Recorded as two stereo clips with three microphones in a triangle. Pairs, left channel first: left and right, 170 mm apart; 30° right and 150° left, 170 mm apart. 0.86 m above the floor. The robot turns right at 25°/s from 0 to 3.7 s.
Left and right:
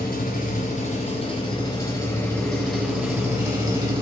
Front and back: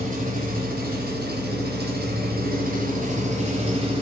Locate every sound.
0.0 s an engine running: 115° left, 4 m; by 4.0 s 155° right, 4 m